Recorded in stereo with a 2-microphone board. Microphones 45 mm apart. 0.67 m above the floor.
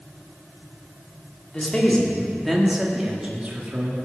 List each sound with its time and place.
1.5 s a man speaking: 20° left (ahead or behind), 1.9 m; by 4.0 s 45° right (ahead or behind), 1.6 m